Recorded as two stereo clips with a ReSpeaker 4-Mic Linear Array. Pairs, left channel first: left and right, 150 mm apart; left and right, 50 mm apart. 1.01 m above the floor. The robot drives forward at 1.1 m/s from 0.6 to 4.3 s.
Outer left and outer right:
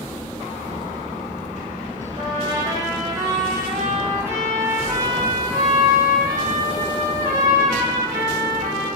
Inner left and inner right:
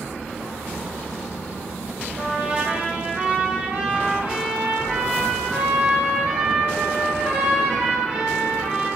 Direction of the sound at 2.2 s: 35° right (ahead or behind).